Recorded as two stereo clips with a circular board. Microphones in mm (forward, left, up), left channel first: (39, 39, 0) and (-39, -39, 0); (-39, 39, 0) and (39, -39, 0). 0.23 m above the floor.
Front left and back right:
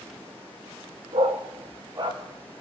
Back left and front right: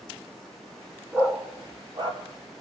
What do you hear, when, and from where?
1.1 s a dog barking: 120° right, 0.8 m; by 2.2 s 85° right, 2 m